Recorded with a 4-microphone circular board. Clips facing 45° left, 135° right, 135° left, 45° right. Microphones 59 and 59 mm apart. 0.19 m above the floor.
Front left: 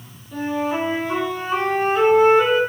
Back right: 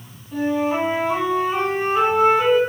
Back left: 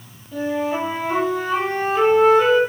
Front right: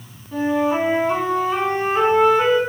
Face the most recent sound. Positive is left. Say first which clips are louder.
# back right 2 dB, front right 3 dB
turn(degrees=-65)